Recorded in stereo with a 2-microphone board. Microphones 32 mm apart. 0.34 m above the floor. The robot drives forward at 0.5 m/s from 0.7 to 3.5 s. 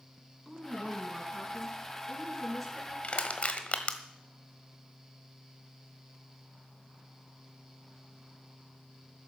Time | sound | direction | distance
0.5 | a woman speaking | 5° left (ahead or behind) | 4 m
3.0 | crushing | 45° left (ahead or behind) | 1.4 m